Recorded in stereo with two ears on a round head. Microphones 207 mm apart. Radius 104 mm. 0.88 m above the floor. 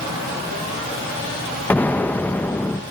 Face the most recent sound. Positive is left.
turn(degrees=10)  # may be behind; listen again after turning